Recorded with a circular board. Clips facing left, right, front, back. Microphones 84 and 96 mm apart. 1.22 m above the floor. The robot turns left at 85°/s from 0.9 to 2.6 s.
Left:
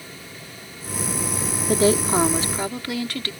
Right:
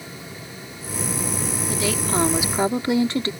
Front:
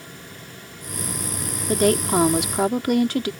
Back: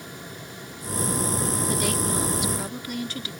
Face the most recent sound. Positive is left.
turn(degrees=-25)